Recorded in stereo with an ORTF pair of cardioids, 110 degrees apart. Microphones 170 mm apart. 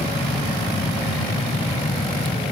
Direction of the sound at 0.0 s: 35° left.